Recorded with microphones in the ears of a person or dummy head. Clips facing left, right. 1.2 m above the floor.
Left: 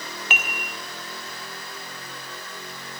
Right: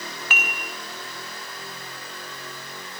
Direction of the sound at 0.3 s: 20° left (ahead or behind).